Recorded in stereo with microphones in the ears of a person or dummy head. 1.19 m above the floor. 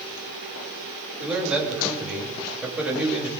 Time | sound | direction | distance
1.2 | a man speaking | 5° right (ahead or behind) | 6.5 m